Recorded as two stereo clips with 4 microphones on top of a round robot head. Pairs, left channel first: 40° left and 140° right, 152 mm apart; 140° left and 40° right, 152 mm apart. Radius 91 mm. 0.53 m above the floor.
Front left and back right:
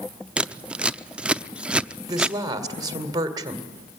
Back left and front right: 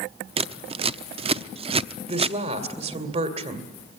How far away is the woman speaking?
About 2 m.